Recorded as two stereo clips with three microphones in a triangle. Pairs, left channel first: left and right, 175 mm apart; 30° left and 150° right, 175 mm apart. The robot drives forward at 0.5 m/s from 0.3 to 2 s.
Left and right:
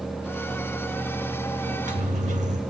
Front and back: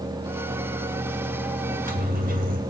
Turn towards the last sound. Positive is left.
turn(degrees=-130)